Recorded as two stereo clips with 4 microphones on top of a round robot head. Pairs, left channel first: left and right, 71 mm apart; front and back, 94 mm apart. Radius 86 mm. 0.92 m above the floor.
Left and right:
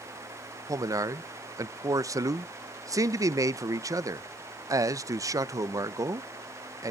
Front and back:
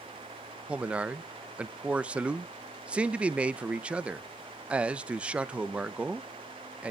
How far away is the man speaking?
About 0.7 m.